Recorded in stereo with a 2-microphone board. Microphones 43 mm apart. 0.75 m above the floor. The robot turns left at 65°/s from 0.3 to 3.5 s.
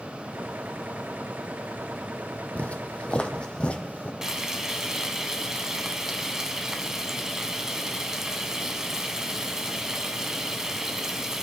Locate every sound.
2.5 s footsteps: 35° left (ahead or behind), 1.3 m; by 4.1 s 40° left (ahead or behind), 1.6 m
4.2 s frying: 15° right (ahead or behind), 1.3 m